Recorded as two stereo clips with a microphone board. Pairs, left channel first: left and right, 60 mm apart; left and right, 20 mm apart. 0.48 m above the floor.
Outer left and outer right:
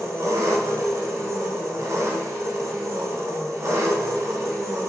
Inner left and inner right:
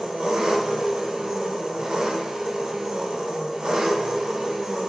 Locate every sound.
0.0 s an engine running: 55° right (ahead or behind), 0.9 m